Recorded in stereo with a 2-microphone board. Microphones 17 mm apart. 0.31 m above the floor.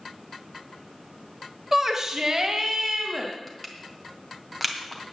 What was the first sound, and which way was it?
A shout, 20° right (ahead or behind).